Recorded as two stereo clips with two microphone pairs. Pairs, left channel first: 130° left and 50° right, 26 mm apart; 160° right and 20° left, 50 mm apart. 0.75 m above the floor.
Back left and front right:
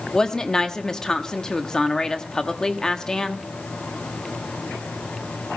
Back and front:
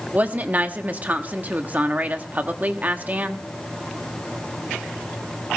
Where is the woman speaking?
70° left, 1.2 m.